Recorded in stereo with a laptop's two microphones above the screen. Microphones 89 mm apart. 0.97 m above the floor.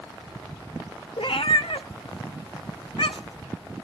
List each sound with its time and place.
1.2 s a cat meowing: 75° left (ahead or behind), 0.6 m